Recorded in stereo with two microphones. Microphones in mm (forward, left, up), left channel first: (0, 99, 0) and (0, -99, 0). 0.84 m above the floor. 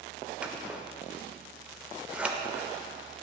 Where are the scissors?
5° right (ahead or behind), 0.5 m.